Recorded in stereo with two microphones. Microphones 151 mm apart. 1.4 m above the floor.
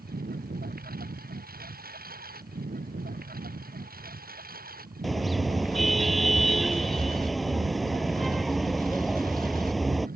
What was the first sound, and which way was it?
A lawn mower, 85° right.